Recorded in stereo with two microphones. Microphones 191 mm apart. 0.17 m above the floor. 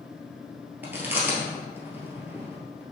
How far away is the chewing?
About 1.6 m.